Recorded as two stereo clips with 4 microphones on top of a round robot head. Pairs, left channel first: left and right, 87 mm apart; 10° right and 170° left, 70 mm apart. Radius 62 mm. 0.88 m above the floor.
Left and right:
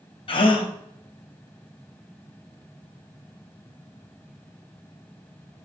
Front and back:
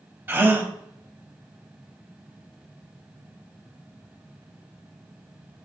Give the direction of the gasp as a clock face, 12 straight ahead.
8 o'clock.